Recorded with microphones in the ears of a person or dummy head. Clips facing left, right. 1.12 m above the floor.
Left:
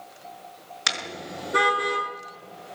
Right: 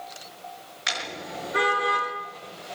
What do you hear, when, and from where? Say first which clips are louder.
0.9 s a car horn: even; 65° left (ahead or behind), 6.5 m; by 2.0 s 60° left (ahead or behind), 7 m